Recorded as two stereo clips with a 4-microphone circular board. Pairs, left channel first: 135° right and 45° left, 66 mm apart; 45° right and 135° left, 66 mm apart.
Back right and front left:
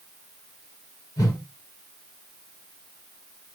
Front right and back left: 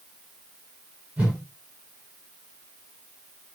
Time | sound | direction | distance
1.2 | a whoosh | 155° right | 5 m